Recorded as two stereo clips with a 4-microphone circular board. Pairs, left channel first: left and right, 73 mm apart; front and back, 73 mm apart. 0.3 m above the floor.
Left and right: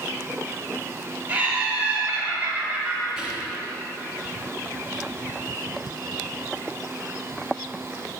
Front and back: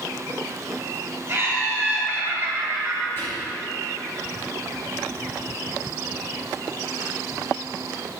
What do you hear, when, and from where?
1.3 s laughter: 145° right, 1.3 m
3.2 s whispering: 30° right, 1.4 m